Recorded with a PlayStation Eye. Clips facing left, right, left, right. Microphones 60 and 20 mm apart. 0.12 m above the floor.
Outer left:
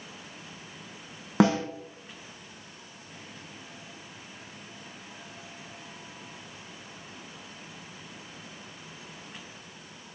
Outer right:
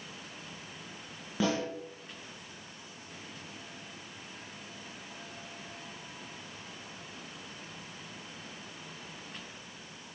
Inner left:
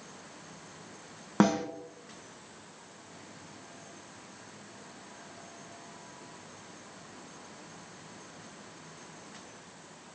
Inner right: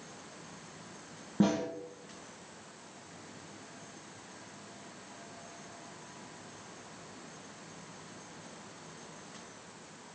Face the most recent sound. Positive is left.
turn(degrees=80)